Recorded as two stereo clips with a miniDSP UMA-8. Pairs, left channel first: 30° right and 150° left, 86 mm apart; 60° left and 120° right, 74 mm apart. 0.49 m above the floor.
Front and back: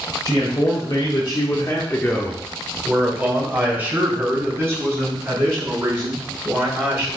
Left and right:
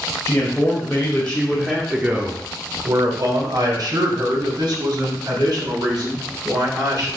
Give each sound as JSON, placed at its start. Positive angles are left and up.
{"t": 0.2, "sound": "a man speaking", "azimuth_deg": 5, "distance_m": 2.0}